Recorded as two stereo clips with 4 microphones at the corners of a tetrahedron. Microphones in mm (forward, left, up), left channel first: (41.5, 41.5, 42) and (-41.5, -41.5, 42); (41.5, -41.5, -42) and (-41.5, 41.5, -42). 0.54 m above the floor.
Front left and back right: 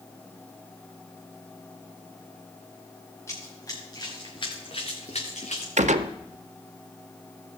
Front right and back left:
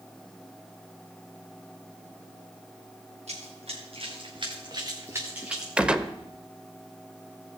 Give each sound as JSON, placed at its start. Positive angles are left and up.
{"t": 3.3, "sound": "running footsteps", "azimuth_deg": 110, "distance_m": 4.0}
{"t": 5.8, "sound": "a gunshot", "azimuth_deg": -145, "distance_m": 0.6}